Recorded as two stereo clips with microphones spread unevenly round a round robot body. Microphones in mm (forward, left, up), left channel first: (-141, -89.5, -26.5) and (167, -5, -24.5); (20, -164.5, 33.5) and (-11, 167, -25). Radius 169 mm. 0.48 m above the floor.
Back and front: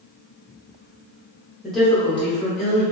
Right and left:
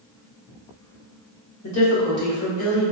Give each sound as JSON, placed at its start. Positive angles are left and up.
{"t": 1.6, "sound": "a woman speaking", "azimuth_deg": -70, "distance_m": 1.2}